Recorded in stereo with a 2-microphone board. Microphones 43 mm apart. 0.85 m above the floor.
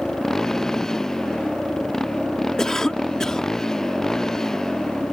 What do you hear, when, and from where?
0.0 s a motorcycle: 10° left (ahead or behind)
2.6 s a cough: 15° left (ahead or behind)